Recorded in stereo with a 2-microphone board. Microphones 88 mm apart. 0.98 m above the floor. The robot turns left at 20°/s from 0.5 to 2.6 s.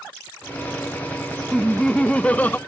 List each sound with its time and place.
1.5 s laughter: 5° left (ahead or behind); by 2.6 s 20° left (ahead or behind)